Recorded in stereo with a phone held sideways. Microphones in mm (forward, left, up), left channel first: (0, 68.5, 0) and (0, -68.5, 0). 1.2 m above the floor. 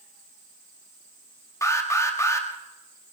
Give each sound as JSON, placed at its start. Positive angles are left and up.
{"t": 1.6, "sound": "an alarm", "side_deg": 20, "distance_m": 2.0}